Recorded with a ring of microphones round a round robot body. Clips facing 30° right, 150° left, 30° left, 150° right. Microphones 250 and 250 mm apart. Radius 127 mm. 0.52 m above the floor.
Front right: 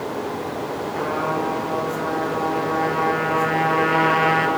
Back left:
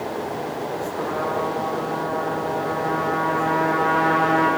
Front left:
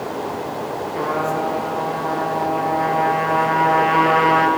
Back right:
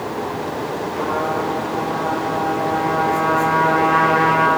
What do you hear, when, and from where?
0.9 s a trumpet: 40° right, 4.5 m